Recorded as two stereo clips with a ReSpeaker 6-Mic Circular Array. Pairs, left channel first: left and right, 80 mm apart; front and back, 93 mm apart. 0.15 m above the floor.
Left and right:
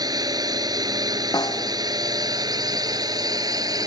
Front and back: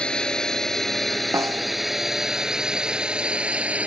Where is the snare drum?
125° left.